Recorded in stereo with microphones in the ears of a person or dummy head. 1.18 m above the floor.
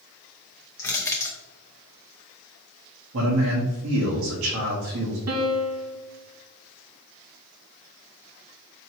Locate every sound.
0.8 s crushing: 20° left (ahead or behind), 0.7 m
3.1 s a man speaking: 60° right (ahead or behind), 1.1 m
5.3 s a piano: 75° right (ahead or behind), 0.9 m